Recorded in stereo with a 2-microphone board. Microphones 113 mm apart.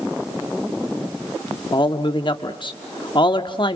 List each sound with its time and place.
1.7 s a man speaking: 45° left (ahead or behind), 1.0 m